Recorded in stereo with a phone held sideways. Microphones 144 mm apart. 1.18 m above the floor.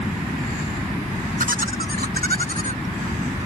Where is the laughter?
70° right (ahead or behind); by 3.5 s 40° right (ahead or behind).